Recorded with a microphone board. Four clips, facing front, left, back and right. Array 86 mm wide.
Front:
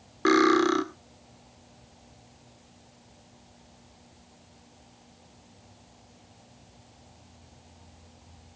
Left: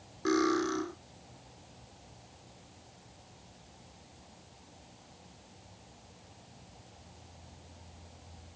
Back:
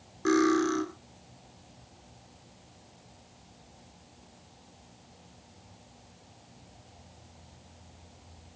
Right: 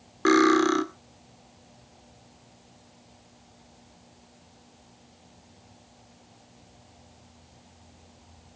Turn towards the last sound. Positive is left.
turn(degrees=-45)